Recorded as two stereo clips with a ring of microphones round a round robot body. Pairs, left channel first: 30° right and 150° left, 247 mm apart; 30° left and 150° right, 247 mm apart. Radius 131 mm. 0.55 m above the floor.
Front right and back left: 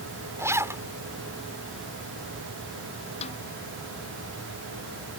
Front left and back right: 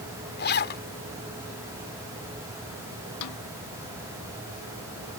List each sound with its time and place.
0.4 s a zipper: 70° left
3.2 s a snare drum: 35° left